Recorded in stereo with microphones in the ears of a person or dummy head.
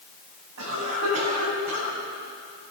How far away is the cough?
About 10 m.